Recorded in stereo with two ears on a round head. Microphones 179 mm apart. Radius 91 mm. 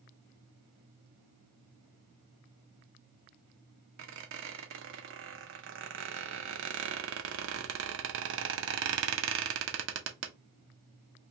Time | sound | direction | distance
4.0 | a squeak | 65° right (ahead or behind) | 0.6 m